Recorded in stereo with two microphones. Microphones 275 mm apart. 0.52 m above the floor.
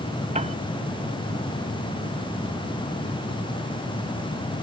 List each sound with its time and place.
0.3 s a piano: 25° right (ahead or behind)